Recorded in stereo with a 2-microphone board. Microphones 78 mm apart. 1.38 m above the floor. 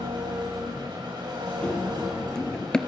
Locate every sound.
0.0 s an engine running: 75° right (ahead or behind), 6.5 m
1.6 s running footsteps: 10° left (ahead or behind), 1.8 m